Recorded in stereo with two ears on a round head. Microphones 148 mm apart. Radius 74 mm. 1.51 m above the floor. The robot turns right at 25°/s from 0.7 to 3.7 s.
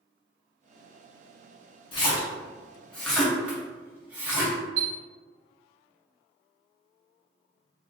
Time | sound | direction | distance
1.9 | a splash | 35° left (ahead or behind) | 1.2 m
4.8 | a chime | 80° right | 1.2 m